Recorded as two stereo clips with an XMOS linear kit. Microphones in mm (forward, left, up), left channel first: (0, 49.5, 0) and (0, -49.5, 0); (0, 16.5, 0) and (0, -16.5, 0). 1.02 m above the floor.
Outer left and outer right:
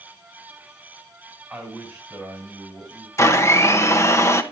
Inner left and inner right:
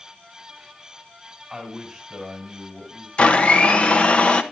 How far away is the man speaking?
About 4 m.